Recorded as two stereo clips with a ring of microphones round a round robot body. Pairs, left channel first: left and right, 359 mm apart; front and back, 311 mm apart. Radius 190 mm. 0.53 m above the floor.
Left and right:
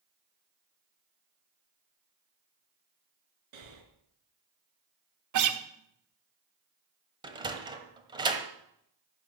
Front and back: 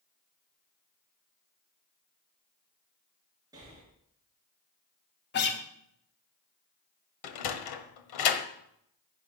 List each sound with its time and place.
3.5 s breathing: 100° right, 2.5 m
5.3 s a guitar: 55° right, 1.3 m
7.2 s a sliding door: 10° right, 1.3 m